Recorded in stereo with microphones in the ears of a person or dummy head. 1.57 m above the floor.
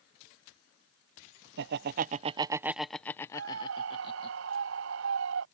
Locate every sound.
1.6 s laughter: 65° right (ahead or behind); by 4.3 s 35° left (ahead or behind)
3.3 s a scream: 75° right (ahead or behind)